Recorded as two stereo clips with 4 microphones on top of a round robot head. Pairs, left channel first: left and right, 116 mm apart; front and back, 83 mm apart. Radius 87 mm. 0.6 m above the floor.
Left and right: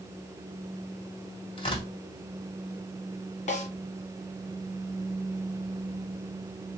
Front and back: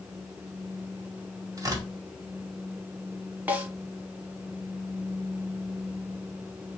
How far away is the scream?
No scream in this recording.